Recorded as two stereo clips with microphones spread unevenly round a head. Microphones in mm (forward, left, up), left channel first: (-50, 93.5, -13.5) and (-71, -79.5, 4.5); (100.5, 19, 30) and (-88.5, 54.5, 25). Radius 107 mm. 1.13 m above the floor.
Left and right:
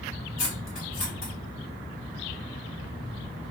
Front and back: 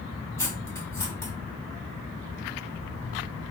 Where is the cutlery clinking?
65° left, 1.5 m.